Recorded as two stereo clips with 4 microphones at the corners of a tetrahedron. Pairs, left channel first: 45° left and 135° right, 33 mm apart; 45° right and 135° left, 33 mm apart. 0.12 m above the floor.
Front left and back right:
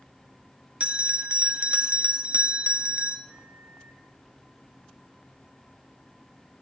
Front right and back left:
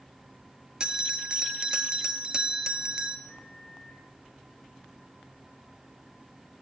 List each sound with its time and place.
0.8 s a bell: 170° right, 0.8 m
3.3 s a microwave: 5° right, 4.5 m